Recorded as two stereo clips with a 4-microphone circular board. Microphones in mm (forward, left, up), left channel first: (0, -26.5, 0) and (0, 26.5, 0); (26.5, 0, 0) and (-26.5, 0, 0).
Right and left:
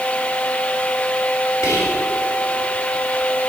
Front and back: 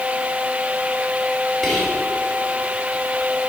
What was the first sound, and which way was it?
Whispering, 85° right.